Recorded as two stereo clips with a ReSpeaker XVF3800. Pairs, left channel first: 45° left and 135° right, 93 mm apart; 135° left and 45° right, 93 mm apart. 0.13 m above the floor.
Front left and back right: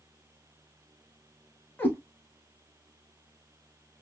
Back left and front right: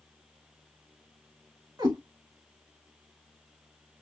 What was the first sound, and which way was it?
A cat meowing, 15° right.